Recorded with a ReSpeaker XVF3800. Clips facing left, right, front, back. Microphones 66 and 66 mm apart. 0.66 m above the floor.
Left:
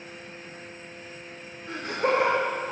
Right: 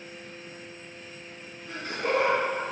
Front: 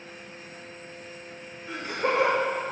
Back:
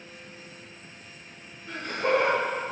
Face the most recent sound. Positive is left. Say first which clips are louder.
# left 3 dB, back 1 dB
turn(degrees=70)